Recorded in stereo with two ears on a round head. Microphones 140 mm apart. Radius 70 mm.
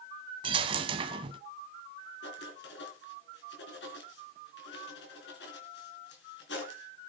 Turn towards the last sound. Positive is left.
turn(degrees=75)  # may be behind; listen again after turning